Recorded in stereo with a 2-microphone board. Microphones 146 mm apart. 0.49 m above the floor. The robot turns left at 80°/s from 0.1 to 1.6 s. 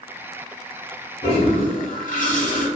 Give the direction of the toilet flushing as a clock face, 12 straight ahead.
7 o'clock.